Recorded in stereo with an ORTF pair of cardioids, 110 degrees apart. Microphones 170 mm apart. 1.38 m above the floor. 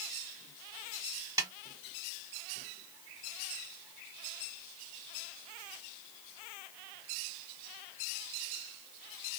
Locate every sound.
1.4 s a snare drum: 20° right, 1.4 m